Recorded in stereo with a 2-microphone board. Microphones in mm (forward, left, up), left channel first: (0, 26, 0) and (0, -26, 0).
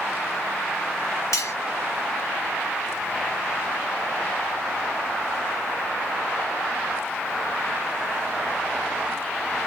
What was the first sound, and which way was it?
Cutlery clinking, 75° left (ahead or behind).